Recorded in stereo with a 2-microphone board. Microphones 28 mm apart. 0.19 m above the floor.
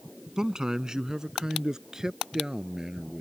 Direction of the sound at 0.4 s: 25° right (ahead or behind).